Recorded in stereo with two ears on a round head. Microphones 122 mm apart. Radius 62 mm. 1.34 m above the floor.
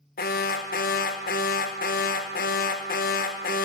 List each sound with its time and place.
0.2 s an alarm: 75° left (ahead or behind), 1.3 m